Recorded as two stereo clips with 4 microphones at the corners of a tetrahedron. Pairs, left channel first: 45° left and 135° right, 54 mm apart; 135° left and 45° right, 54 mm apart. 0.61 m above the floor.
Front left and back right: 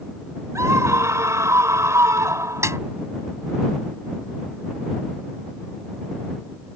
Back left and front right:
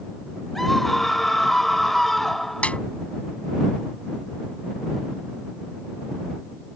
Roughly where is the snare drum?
Behind.